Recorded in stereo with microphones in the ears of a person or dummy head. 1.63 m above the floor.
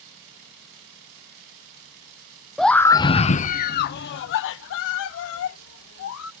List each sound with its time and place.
2.6 s a scream: centre (ahead or behind); by 6.3 s 80° left